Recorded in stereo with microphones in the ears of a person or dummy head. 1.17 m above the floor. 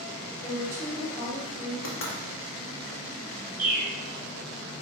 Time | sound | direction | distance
0.4 | a woman speaking | 20° left (ahead or behind) | 1.4 m
1.8 | knocking | 65° left (ahead or behind) | 0.8 m
3.6 | a bird | 10° right (ahead or behind) | 0.7 m